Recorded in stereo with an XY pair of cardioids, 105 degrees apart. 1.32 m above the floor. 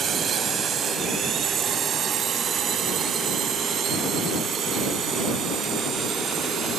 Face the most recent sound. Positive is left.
turn(degrees=-70)